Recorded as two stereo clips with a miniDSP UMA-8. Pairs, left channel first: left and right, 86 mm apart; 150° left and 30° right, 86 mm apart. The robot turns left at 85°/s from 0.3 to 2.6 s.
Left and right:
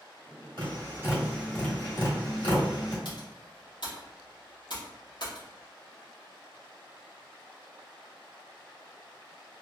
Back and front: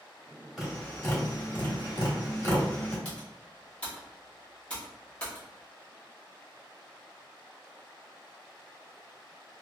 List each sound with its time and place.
0.6 s tapping: 115° right, 1.7 m; by 3.0 s 75° left, 1.7 m
3.0 s typing on a keyboard: 75° left, 1.4 m